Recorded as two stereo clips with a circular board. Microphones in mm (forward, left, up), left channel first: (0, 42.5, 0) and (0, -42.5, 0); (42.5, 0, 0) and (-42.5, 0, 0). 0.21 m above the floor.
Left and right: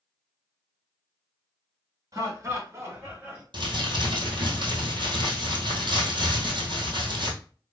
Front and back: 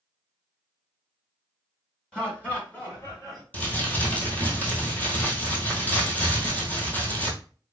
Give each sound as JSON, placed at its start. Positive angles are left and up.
{"t": 2.1, "sound": "laughter", "azimuth_deg": -75, "distance_m": 1.9}
{"t": 3.5, "sound": "crumpling", "azimuth_deg": -70, "distance_m": 1.4}